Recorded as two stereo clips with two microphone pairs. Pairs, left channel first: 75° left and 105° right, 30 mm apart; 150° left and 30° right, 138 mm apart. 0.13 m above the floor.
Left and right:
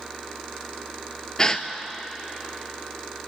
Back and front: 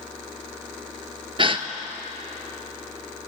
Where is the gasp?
15° left, 0.7 m.